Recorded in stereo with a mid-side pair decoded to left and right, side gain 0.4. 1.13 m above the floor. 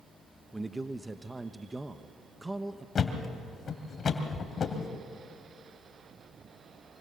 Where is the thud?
50° left, 2.5 m.